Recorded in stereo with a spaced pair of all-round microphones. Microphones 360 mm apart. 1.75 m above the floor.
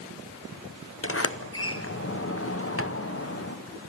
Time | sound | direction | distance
1.0 | a sliding door | 40° left (ahead or behind) | 0.8 m